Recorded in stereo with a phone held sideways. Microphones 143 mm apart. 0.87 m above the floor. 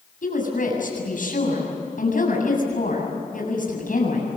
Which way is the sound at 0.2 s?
70° left (ahead or behind).